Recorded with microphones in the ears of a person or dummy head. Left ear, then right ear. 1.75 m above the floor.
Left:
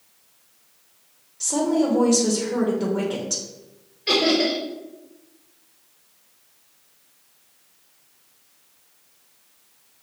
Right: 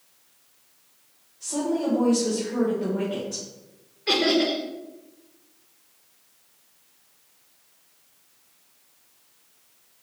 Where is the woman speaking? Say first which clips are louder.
Left 5 dB; 70° left (ahead or behind), 0.9 m.